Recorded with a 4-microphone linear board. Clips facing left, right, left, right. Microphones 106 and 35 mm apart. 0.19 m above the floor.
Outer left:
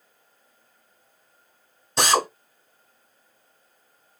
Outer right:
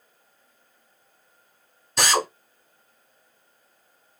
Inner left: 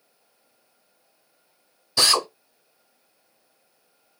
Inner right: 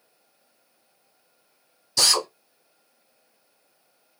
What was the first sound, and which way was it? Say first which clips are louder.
A drill: outer left 2 dB, inner left 2 dB; 25° left (ahead or behind).